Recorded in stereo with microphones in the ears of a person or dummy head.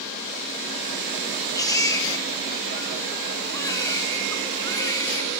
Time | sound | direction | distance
1.6 | a baby crying | 20° left (ahead or behind) | 1.6 m